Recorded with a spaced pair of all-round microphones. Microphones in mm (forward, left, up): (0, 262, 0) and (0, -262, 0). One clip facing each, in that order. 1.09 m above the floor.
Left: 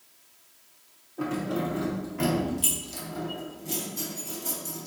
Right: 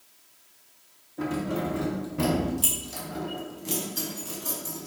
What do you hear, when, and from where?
1.2 s keys jangling: 40° right (ahead or behind), 1.8 m; by 4.9 s 70° right (ahead or behind), 1.7 m